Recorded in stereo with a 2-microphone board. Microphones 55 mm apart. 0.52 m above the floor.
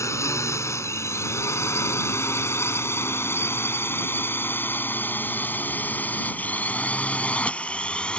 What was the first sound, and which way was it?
A drone, 60° left (ahead or behind).